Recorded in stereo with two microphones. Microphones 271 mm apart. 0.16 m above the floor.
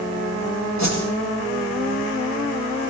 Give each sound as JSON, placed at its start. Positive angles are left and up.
{"t": 0.8, "sound": "a whoosh", "side_deg": 80, "distance_m": 8.0}